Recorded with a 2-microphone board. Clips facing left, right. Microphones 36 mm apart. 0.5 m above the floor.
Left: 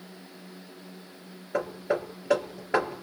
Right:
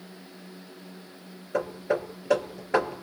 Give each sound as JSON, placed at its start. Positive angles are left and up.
{"t": 1.5, "sound": "hammering", "side_deg": 15, "distance_m": 3.0}